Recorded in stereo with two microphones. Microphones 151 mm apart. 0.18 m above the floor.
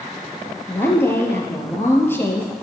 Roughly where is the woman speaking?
Centre.